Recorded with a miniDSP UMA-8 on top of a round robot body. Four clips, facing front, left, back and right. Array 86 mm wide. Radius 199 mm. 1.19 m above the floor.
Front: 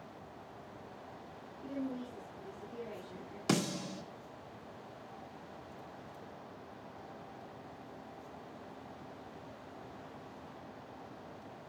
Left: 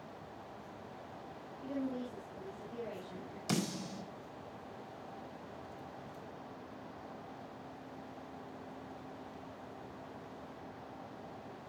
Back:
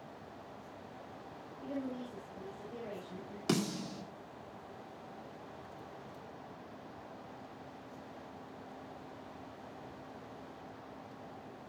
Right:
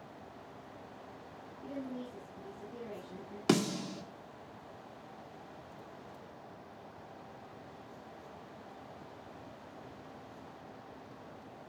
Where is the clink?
I don't hear a clink.